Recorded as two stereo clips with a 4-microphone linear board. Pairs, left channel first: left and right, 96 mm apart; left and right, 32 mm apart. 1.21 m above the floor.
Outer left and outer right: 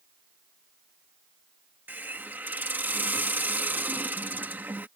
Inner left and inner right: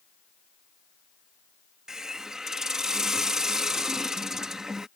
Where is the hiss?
20° right (ahead or behind).